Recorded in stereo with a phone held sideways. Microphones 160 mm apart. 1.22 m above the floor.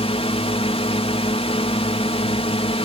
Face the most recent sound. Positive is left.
turn(degrees=40)  # may be behind; listen again after turning